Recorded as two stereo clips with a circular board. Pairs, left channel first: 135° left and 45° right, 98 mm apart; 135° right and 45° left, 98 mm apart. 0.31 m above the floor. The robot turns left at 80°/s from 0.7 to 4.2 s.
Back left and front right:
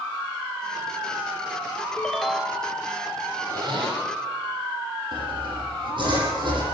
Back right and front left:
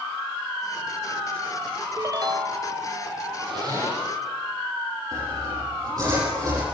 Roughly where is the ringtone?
Ahead left.